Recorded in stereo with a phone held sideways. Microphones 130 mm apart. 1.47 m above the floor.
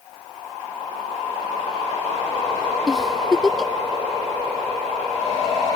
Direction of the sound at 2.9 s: 5° left (ahead or behind).